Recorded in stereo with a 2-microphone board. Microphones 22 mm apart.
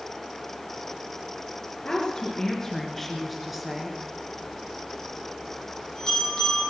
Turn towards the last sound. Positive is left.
turn(degrees=30)  # may be behind; listen again after turning